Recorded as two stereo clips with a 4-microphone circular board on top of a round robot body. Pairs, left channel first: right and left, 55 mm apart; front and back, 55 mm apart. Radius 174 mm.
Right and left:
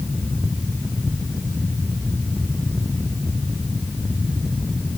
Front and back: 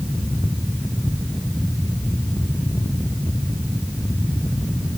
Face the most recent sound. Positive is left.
No sound to turn to.